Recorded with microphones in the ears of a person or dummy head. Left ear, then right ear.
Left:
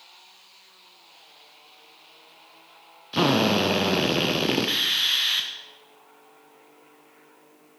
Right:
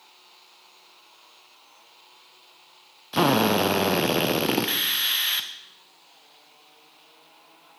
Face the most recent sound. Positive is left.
turn(degrees=-25)  # may be behind; listen again after turning